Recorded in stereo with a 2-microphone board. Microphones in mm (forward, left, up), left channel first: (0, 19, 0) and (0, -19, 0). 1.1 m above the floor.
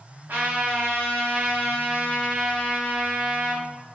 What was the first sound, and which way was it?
A trumpet, 70° right (ahead or behind).